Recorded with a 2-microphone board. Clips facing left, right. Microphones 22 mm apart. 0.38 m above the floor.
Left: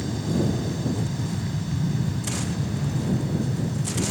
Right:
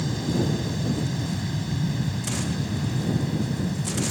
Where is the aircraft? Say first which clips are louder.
Even; 20° right (ahead or behind); by 4.1 s 25° right (ahead or behind).